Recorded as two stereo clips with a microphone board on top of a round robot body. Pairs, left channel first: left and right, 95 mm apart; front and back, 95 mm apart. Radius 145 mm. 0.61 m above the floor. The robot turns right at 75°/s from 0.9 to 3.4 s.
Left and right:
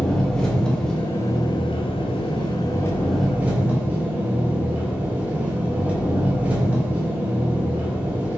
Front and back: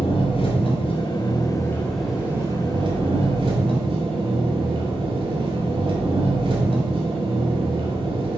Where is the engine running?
5° left, 2.5 m; by 8.4 s 165° right, 2.5 m.